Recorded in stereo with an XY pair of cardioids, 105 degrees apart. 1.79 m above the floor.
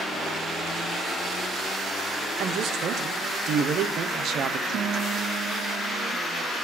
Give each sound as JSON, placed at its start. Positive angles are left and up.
{"t": 2.4, "sound": "a man speaking", "azimuth_deg": -65, "distance_m": 1.1}
{"t": 4.7, "sound": "a guitar", "azimuth_deg": -65, "distance_m": 0.9}